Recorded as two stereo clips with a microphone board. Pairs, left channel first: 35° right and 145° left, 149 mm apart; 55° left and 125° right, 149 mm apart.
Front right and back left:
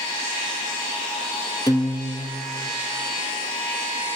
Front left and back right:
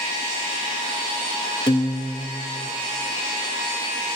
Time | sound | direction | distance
1.7 | a guitar | 20° left | 0.7 m